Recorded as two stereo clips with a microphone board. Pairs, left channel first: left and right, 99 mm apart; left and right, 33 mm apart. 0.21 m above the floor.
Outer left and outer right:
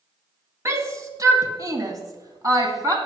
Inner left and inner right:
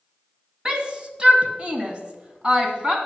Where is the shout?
25° right (ahead or behind), 1.7 m; by 3.0 s 35° right (ahead or behind), 2 m.